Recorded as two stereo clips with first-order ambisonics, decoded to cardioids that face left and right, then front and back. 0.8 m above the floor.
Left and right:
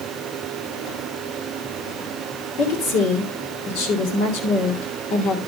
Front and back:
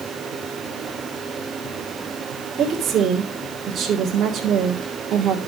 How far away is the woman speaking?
About 3 m.